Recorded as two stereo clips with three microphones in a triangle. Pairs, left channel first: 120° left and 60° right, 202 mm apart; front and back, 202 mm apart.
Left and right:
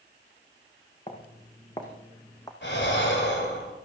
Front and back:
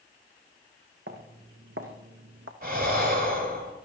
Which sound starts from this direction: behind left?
Breathing, at 2.6 s.